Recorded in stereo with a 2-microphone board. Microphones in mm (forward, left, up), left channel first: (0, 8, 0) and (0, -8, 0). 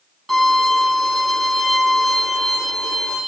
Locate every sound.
0.3 s a violin: 20° left (ahead or behind), 4 m